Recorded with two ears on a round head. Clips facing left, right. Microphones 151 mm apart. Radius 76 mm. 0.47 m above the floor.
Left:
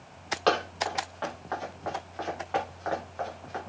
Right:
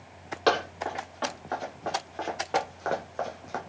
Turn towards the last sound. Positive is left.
turn(degrees=-60)  # may be behind; listen again after turning